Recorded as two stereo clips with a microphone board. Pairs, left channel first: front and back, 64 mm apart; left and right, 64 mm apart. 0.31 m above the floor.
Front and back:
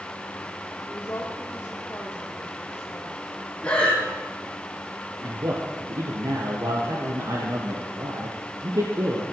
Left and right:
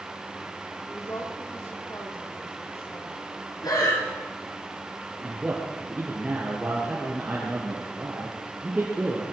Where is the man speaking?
165° right, 5 m.